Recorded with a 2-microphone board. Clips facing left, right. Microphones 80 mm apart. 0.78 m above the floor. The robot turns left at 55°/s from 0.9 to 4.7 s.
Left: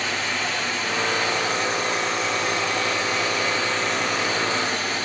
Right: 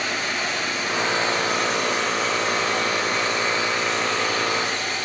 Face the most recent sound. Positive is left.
turn(degrees=140)